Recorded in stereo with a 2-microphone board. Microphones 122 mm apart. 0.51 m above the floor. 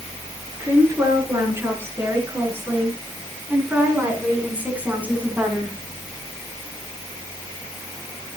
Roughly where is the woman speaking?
Right.